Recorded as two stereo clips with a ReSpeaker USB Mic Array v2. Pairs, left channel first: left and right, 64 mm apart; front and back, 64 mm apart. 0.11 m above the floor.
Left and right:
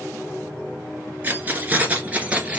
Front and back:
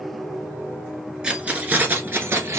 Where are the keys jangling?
115° right, 1.1 m; by 2.6 s 150° right, 1.4 m.